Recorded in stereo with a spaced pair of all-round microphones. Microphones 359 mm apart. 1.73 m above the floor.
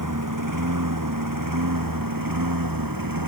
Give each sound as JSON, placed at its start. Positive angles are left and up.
{"t": 0.0, "sound": "a lawn mower", "side_deg": -60}